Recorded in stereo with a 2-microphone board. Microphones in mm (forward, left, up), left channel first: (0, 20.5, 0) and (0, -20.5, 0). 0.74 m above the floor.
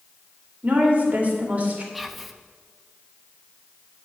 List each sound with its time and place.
0.6 s a woman speaking: 40° right (ahead or behind), 2 m
1.9 s whispering: centre (ahead or behind), 0.7 m